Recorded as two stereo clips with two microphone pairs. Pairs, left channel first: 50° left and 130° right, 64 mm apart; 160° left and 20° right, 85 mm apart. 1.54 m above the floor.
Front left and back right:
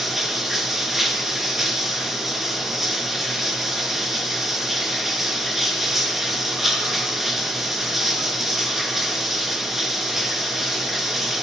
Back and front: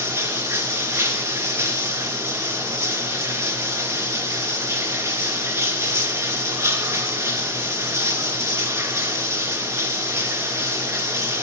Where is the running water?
45° right, 1.8 m.